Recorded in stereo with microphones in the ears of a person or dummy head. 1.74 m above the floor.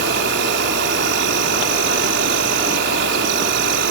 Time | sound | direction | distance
0.0 | an insect | 70° right (ahead or behind) | ?